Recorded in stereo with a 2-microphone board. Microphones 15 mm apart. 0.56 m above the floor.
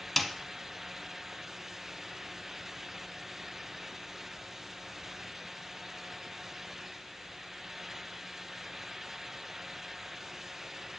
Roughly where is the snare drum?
Centre.